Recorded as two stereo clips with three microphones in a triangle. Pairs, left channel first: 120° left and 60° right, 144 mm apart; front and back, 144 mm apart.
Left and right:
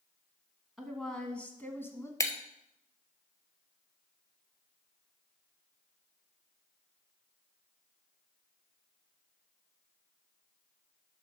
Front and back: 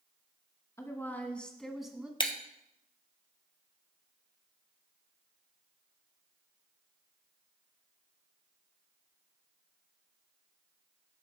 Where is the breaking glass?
50° left, 1.0 m.